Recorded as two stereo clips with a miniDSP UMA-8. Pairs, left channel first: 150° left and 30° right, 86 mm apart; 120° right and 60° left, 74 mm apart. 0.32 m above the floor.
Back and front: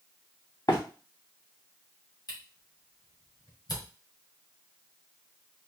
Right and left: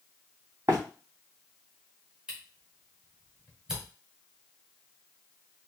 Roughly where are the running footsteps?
Left.